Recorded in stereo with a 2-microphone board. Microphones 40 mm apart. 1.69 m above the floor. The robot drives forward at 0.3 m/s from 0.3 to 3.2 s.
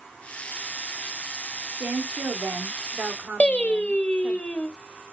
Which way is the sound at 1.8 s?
50° right (ahead or behind).